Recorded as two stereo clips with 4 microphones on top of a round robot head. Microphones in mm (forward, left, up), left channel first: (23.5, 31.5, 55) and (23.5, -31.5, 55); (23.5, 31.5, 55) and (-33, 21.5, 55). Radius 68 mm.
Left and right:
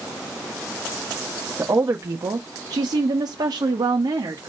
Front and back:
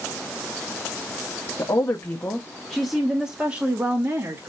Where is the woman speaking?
35° right, 1.2 m; by 4.5 s 120° right, 1.7 m.